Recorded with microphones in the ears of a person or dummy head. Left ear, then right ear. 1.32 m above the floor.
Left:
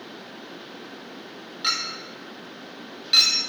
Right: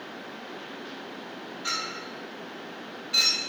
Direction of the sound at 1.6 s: 50° left (ahead or behind).